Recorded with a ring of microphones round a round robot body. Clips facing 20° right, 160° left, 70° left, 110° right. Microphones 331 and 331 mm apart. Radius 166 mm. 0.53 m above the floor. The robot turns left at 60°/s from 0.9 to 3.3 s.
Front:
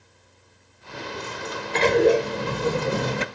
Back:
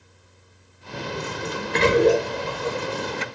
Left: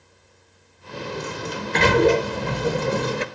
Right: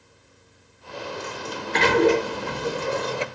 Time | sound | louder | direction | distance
0.9 | a sliding door | back 4 dB, left 3 dB | 135° left | 0.9 m